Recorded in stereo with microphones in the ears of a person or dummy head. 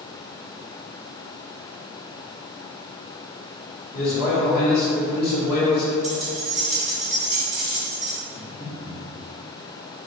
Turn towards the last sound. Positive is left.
turn(degrees=25)  # may be behind; listen again after turning